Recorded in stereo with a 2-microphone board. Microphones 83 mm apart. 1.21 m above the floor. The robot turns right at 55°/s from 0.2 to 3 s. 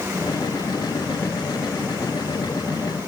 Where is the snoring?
I don't hear snoring.